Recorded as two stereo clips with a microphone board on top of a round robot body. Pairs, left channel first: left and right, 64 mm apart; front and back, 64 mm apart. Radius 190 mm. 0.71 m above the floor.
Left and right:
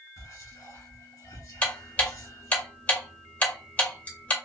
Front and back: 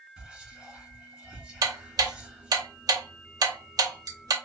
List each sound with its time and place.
0.2 s whispering: 105° left, 2 m
1.6 s ticking: 155° left, 0.5 m